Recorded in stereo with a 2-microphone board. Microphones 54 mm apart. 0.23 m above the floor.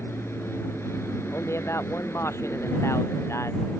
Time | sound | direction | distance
0.0 | an aircraft | 55° left (ahead or behind) | ?
1.3 | a man speaking | 60° left (ahead or behind) | ?